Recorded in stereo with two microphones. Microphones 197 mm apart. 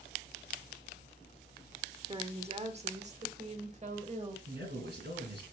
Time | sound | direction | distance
2.1 | a woman speaking | 25° right (ahead or behind) | 0.9 m
4.5 | a man speaking | 60° right (ahead or behind) | 4 m